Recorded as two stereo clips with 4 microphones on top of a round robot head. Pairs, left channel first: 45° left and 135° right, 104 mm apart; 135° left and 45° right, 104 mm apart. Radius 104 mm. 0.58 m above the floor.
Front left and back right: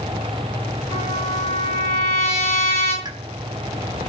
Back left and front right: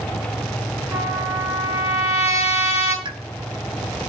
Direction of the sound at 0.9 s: 20° left.